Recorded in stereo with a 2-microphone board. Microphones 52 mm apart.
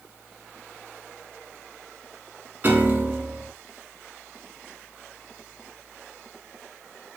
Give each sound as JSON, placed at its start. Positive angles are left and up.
{"t": 2.6, "sound": "a piano", "side_deg": -35, "distance_m": 0.7}